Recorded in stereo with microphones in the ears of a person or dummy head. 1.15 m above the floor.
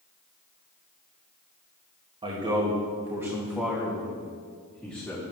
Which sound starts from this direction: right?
A man speaking, at 2.2 s.